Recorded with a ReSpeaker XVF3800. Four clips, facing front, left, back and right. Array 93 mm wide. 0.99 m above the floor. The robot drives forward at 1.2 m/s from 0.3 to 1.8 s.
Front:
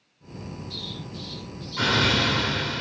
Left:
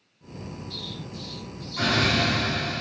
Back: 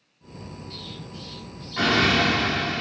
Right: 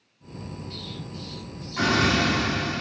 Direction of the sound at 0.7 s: 135° right.